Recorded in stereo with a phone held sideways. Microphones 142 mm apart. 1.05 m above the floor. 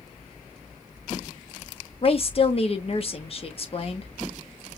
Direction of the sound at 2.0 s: 45° left (ahead or behind).